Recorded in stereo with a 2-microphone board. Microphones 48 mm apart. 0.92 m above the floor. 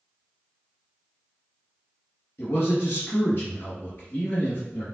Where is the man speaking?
60° left (ahead or behind), 1.5 m.